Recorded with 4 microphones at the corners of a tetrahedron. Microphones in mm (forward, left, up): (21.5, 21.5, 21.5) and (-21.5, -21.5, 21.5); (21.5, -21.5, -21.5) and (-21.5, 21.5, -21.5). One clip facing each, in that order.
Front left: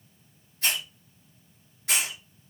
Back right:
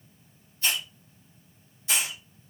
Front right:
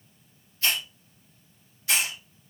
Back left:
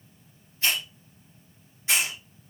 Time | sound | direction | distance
0.6 | a hiss | 70° left | 3 m